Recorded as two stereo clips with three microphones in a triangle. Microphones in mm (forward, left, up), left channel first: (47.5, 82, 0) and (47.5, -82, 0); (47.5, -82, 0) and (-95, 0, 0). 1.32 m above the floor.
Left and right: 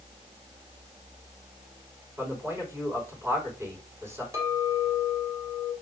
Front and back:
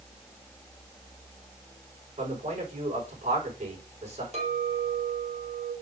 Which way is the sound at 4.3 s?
160° right.